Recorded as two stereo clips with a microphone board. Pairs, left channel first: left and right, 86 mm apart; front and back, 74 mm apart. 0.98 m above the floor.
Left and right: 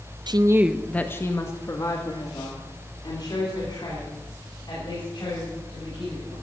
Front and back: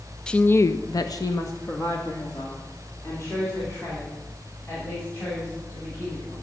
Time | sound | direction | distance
0.3 | a woman speaking | 80° right | 0.5 m